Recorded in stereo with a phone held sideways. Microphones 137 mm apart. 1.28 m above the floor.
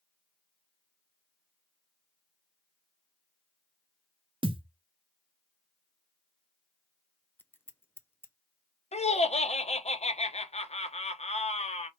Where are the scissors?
15° left (ahead or behind), 0.5 m.